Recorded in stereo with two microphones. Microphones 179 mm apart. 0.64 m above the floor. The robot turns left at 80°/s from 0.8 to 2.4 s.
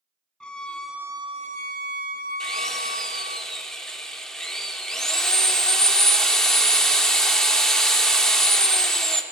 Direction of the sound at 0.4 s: 5° left.